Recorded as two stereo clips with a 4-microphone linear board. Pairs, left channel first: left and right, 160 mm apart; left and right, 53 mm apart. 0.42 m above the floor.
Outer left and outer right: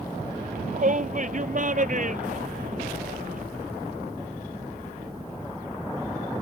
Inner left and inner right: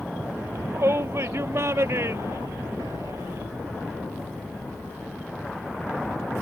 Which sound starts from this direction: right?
A shout, at 0.4 s.